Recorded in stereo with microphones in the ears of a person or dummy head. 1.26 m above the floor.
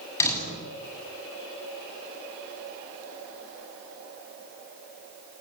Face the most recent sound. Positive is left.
turn(degrees=20)  # may be behind; listen again after turning